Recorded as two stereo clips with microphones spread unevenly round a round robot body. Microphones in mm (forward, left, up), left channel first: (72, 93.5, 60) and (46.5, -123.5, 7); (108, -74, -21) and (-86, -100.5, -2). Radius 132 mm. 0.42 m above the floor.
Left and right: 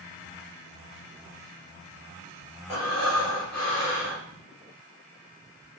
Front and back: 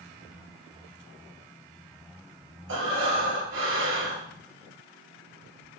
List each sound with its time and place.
2.7 s breathing: 170° left, 3.5 m